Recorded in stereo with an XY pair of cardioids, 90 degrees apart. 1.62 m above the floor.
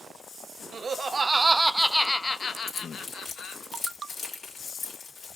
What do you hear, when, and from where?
0.7 s laughter: 45° right, 0.8 m; by 3.6 s 75° left, 1.0 m
2.7 s keys jangling: 60° left, 2.5 m